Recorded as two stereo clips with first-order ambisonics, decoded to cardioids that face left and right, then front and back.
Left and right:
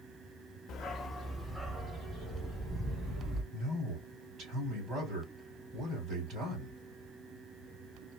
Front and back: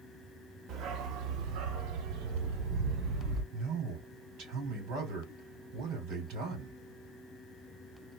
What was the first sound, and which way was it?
A dog barking, 135° left.